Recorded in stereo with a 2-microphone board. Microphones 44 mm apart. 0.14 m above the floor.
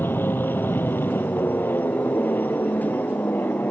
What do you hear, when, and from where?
0.0 s an aircraft: 55° left (ahead or behind); by 3.7 s 50° left (ahead or behind)